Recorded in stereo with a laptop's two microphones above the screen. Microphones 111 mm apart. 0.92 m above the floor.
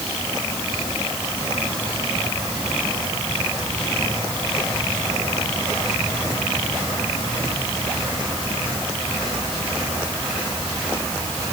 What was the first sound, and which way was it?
Only background noise.